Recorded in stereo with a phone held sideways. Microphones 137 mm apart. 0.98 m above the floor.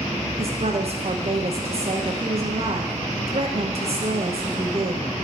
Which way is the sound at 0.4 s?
50° right (ahead or behind).